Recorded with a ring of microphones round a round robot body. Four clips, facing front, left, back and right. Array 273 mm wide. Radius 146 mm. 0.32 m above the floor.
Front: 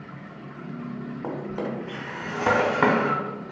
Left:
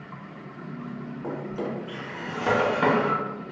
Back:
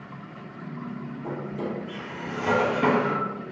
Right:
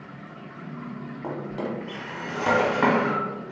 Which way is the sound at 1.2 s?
10° right.